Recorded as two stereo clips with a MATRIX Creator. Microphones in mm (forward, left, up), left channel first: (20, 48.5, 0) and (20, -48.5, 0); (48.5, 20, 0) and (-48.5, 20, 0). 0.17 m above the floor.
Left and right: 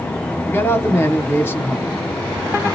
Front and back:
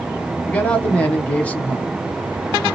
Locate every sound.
0.5 s a man speaking: 60° left, 1.0 m